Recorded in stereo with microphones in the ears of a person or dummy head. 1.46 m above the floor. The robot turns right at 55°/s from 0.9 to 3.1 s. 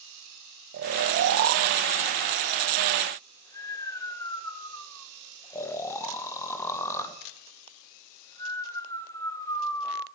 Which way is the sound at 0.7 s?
55° right (ahead or behind).